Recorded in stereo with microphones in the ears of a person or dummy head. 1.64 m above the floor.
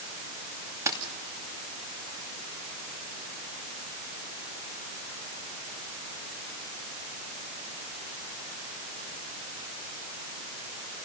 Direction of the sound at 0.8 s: 15° right (ahead or behind).